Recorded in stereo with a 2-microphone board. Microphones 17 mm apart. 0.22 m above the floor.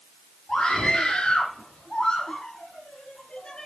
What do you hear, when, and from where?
0.5 s a scream: 75° left (ahead or behind), 7.5 m; by 3.7 s 80° left, 5.5 m